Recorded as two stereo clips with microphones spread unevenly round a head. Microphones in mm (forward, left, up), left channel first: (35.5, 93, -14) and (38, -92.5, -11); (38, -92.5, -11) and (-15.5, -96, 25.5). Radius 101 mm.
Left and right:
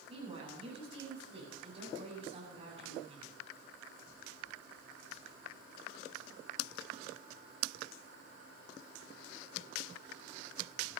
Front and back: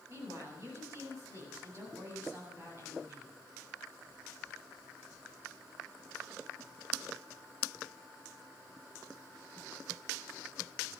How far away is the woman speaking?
About 8.5 m.